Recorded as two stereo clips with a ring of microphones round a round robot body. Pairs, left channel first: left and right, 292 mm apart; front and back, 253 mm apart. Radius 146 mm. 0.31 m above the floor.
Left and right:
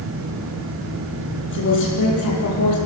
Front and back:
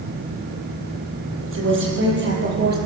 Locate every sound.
1.4 s a woman speaking: 145° left, 8 m; by 2.8 s 130° left, 8 m